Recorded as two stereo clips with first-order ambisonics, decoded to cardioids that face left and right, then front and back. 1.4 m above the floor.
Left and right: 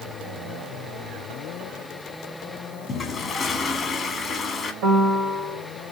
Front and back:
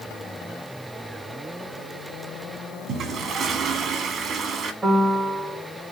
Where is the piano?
100° right, 3 m.